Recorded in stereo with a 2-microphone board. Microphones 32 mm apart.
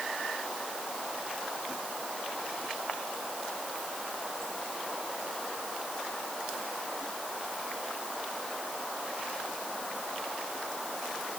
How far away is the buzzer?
No buzzer in this recording.